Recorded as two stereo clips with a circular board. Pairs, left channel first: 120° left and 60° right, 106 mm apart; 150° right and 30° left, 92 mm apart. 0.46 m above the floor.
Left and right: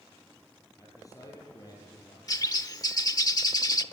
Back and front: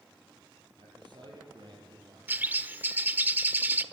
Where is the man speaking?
60° left, 10 m; by 2.2 s 70° left, 9 m.